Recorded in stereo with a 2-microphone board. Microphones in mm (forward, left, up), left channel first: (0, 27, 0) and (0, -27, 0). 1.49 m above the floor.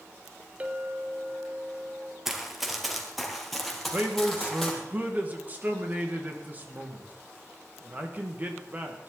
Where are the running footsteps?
5° right (ahead or behind), 2 m; by 4.7 s 10° left (ahead or behind), 3.5 m.